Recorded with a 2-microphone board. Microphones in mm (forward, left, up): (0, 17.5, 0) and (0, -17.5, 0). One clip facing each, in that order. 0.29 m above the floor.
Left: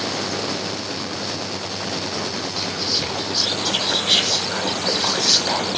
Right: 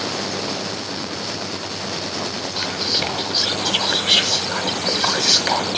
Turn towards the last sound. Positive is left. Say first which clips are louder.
# right 4 dB
turn(degrees=-40)  # may be behind; listen again after turning